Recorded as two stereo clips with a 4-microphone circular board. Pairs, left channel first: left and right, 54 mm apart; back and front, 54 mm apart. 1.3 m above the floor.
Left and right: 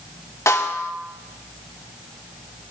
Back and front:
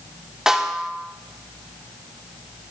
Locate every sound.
0.5 s a snare drum: 80° left, 2 m